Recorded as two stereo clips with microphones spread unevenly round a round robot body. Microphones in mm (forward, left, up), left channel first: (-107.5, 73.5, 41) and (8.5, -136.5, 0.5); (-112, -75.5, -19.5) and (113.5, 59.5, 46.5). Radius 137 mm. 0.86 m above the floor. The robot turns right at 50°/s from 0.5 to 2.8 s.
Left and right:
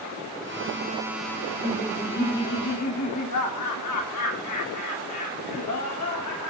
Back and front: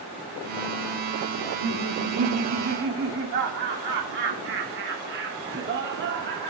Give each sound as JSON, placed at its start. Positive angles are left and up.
{"t": 1.4, "sound": "laughter", "azimuth_deg": 15, "distance_m": 2.5}